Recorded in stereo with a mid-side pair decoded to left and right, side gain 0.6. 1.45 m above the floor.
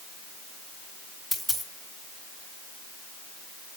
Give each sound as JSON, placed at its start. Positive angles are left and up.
{"t": 1.3, "sound": "a dropped coin", "azimuth_deg": 5, "distance_m": 3.0}